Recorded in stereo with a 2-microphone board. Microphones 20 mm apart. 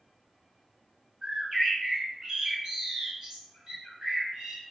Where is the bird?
40° right (ahead or behind), 1.6 m.